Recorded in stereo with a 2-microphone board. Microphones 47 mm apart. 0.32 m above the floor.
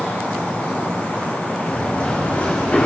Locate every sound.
1.7 s running footsteps: 30° left (ahead or behind), 5.5 m